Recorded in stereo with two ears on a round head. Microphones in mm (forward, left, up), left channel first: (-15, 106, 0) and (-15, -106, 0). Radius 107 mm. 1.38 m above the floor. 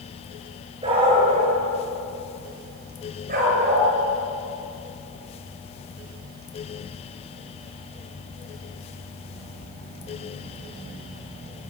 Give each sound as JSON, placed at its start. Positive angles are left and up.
{"t": 0.8, "sound": "a dog barking", "side_deg": -20, "distance_m": 9.5}